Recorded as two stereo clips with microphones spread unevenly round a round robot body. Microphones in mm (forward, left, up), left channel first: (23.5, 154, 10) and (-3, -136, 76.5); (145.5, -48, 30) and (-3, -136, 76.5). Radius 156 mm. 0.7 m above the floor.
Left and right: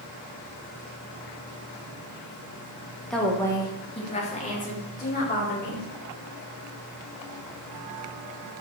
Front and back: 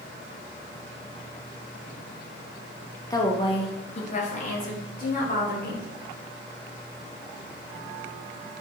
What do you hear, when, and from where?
3.1 s a woman speaking: 20° left, 1.1 m; by 5.8 s 40° left, 2.5 m